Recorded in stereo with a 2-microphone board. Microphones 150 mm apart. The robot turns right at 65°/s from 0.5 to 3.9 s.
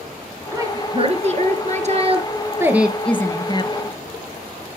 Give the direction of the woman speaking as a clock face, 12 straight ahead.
5 o'clock.